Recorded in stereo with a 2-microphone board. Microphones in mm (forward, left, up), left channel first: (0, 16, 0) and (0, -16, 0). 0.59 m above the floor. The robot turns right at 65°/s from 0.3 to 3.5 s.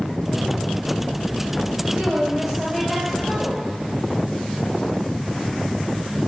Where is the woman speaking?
60° right, 2.5 m; by 3.6 s 40° left, 2.5 m.